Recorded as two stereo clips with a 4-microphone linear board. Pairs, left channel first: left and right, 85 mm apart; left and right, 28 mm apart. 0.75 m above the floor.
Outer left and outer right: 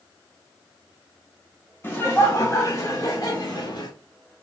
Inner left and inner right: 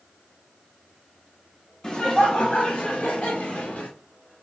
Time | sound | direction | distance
1.8 | laughter | 30° left (ahead or behind) | 0.7 m